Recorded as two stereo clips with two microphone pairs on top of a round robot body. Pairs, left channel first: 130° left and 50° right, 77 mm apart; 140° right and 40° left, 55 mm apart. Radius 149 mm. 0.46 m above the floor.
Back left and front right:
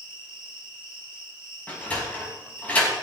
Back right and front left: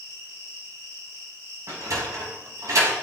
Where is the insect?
25° left, 9 m.